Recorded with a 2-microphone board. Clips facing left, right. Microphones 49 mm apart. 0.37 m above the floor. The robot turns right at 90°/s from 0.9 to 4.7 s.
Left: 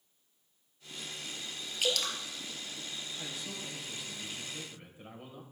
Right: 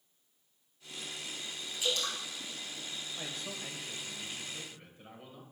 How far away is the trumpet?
No trumpet in this recording.